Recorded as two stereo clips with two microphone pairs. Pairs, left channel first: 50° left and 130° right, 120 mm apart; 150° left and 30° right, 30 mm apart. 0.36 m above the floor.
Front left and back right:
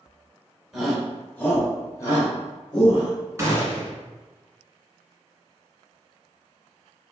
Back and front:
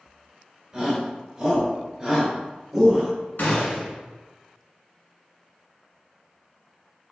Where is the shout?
40° right, 1.6 m; by 3.1 s 35° left, 2 m.